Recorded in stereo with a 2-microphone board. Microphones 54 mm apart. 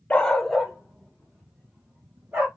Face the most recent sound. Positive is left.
turn(degrees=-35)  # may be behind; listen again after turning